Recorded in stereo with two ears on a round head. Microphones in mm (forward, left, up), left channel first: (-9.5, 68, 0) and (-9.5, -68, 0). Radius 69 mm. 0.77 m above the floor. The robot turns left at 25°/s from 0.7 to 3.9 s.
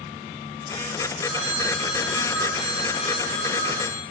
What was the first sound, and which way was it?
A phone ringing, 165° right.